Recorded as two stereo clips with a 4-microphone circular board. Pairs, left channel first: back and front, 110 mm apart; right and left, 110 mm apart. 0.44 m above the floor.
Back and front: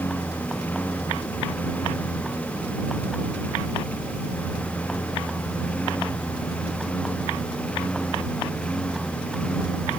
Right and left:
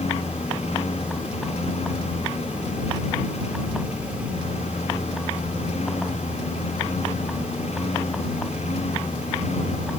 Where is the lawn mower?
105° right; by 10.0 s 100° right.